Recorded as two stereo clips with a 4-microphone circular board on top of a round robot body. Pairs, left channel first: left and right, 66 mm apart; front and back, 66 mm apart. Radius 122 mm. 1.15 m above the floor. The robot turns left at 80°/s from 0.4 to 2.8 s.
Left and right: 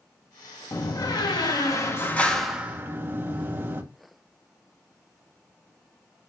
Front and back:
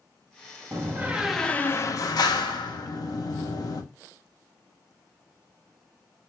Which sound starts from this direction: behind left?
A door slam, at 0.7 s.